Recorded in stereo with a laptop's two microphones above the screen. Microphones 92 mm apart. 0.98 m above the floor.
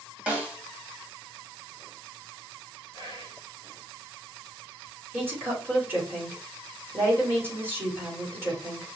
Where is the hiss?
I don't hear a hiss.